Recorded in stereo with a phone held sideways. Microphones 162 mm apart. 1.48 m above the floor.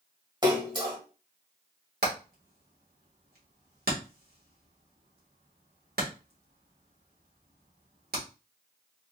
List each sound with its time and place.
0.4 s a splash: 25° right (ahead or behind), 1.4 m
2.0 s hammering: 75° right (ahead or behind), 1.8 m